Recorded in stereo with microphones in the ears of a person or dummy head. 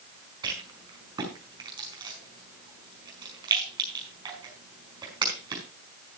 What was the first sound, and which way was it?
A rattle, 20° right (ahead or behind).